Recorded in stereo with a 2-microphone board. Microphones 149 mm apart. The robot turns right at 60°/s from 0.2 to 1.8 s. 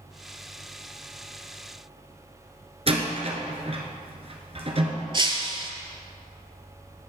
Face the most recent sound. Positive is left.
turn(degrees=-35)  # may be behind; listen again after turning